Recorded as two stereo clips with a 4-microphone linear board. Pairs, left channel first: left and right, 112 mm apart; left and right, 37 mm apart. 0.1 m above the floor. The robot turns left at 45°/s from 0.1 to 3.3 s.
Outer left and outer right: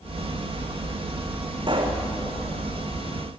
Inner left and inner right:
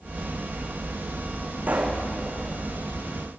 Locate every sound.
1.7 s a pop: 45° right (ahead or behind), 3.5 m; by 2.0 s 60° right (ahead or behind), 3.5 m